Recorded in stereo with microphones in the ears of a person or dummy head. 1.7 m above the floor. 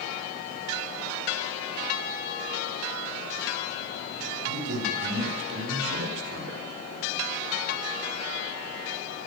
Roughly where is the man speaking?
Right.